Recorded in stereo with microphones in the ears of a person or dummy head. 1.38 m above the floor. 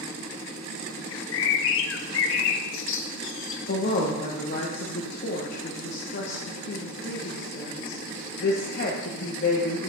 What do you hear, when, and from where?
1.1 s a bird: 55° left (ahead or behind), 0.6 m
3.7 s a woman speaking: 60° left (ahead or behind), 1.1 m